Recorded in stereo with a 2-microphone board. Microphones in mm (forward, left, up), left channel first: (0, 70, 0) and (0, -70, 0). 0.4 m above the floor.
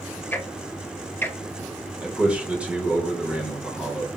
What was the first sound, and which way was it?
Ticking, 15° left (ahead or behind).